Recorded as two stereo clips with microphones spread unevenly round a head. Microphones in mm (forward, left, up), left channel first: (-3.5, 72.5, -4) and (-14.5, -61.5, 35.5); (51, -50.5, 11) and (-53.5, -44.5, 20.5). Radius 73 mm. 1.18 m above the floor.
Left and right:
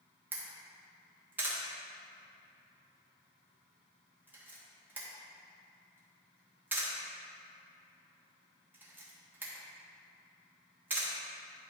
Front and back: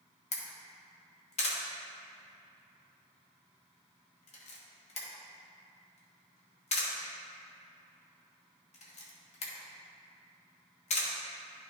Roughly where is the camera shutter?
Ahead.